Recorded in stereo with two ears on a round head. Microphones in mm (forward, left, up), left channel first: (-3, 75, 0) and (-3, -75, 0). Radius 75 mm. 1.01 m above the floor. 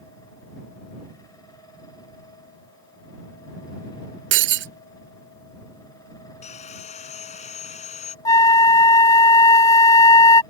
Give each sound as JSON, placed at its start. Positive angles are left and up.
{"t": 4.3, "sound": "breaking glass", "side_deg": -85}
{"t": 6.4, "sound": "sawing", "side_deg": 45}
{"t": 8.2, "sound": "a flute", "side_deg": 20}